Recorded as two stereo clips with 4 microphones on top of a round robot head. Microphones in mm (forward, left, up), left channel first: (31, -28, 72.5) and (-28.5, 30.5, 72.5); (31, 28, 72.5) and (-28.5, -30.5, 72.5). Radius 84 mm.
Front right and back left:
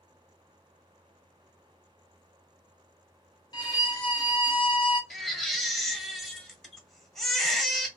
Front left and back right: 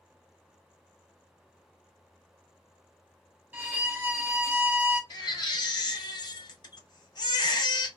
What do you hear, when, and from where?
3.5 s a violin: 70° right, 1.1 m
5.1 s a baby crying: 40° left, 0.8 m